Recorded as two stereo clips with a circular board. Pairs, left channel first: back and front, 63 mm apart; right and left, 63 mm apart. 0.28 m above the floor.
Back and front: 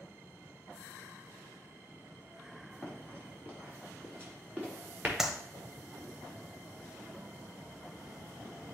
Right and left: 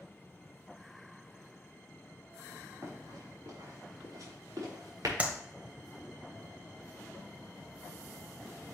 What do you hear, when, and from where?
2.8 s running footsteps: 60° left, 3.5 m; by 5.1 s 65° left, 5 m
5.2 s a clap: 70° left, 0.9 m